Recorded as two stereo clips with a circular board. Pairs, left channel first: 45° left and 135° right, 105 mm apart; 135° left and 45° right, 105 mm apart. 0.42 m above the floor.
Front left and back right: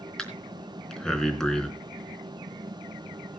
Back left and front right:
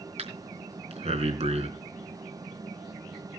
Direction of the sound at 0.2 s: 40° right.